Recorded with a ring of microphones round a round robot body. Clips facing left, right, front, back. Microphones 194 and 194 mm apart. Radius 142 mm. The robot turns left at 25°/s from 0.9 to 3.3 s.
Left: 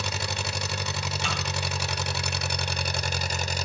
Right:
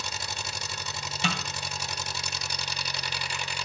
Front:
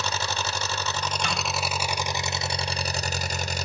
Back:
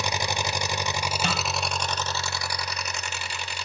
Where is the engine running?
105° left, 0.8 m; by 3.6 s 45° left, 0.8 m.